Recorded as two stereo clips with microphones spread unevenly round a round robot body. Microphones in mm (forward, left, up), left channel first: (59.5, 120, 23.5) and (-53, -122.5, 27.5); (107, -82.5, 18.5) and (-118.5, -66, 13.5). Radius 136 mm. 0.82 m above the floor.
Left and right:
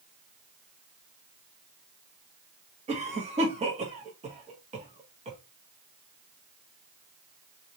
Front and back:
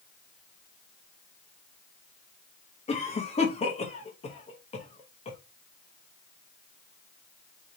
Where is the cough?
55° right, 1.0 m.